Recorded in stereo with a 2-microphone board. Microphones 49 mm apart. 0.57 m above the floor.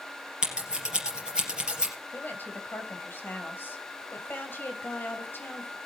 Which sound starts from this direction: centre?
Scissors, at 0.4 s.